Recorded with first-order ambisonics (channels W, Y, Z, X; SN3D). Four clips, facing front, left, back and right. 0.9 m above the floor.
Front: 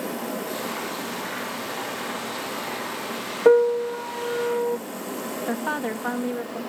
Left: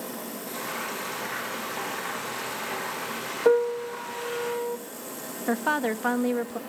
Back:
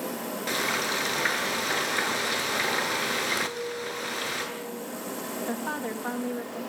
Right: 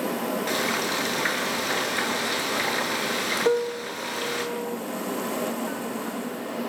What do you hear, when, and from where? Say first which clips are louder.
0.5 s frying: right 6 dB, back 3 dB; 135° right, 8 m
3.5 s a piano: left 7 dB, front 16 dB; 10° left, 0.5 m
5.5 s a woman speaking: left 4 dB, front 6 dB; 65° left, 1.5 m